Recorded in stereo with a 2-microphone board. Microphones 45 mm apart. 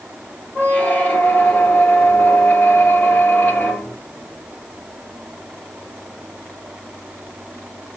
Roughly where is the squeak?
Left.